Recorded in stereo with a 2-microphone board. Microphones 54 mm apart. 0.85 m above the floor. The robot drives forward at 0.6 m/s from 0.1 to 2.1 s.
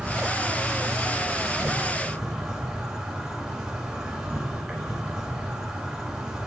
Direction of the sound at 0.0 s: 15° right (ahead or behind).